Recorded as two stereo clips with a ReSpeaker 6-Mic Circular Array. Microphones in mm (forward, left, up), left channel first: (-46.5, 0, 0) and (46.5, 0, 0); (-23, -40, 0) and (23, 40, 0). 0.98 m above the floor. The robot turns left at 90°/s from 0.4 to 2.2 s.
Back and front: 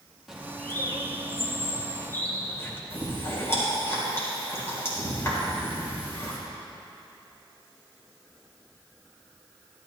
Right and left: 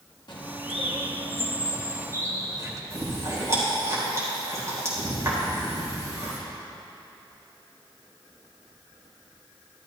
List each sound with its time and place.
0.3 s a bird: 85° right, 1.5 m; by 2.8 s 110° left, 1.5 m
2.9 s chewing: 115° left, 4 m